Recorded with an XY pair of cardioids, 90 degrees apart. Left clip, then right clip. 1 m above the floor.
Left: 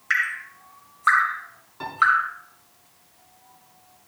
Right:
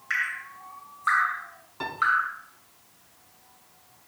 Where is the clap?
I don't hear a clap.